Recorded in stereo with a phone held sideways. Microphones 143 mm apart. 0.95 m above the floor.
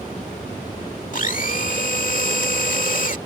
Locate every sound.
1.1 s a blender: 60° left (ahead or behind)